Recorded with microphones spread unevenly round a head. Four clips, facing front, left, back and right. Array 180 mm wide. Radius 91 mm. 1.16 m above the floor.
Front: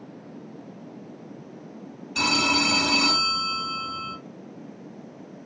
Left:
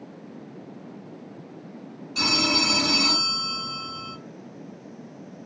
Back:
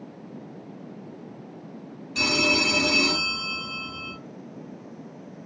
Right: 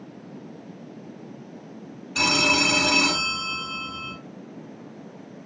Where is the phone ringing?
45° right, 2 m.